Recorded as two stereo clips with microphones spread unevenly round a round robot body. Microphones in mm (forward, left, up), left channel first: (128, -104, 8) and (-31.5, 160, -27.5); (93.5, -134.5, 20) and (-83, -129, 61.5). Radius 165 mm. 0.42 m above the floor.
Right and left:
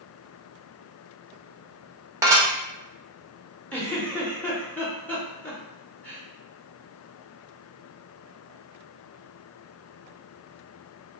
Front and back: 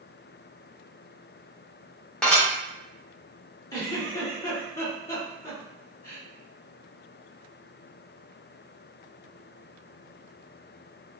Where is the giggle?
30° left, 0.7 m.